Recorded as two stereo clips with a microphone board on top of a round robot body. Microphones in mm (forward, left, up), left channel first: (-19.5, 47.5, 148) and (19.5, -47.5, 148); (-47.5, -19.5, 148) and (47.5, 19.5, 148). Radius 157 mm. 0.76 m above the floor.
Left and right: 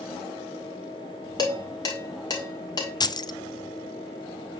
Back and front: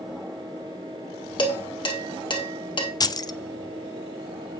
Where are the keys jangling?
155° left, 0.6 m.